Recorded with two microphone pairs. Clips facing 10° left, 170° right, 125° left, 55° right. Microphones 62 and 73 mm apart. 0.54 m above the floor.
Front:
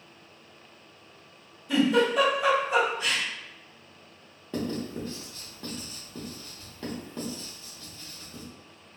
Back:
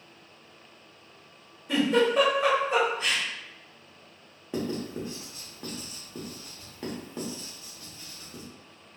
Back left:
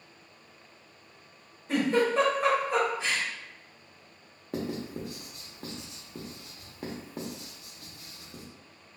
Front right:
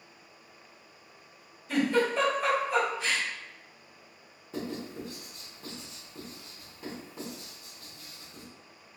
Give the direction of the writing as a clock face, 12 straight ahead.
8 o'clock.